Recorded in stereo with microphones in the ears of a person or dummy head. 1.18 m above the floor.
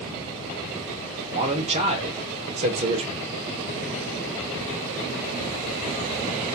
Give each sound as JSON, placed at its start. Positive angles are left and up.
{"t": 1.3, "sound": "a man speaking", "side_deg": -30, "distance_m": 1.1}